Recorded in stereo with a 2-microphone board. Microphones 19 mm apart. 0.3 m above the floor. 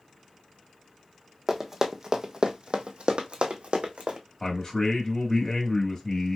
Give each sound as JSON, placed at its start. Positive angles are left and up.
{"t": 1.5, "sound": "running footsteps", "side_deg": -10, "distance_m": 1.0}
{"t": 4.4, "sound": "a man speaking", "side_deg": 45, "distance_m": 1.4}